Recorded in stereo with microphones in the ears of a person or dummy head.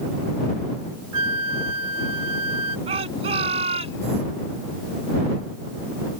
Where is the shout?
30° right (ahead or behind).